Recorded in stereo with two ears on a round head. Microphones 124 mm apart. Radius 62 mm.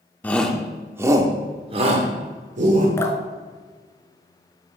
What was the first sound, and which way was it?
A shout, 10° left (ahead or behind).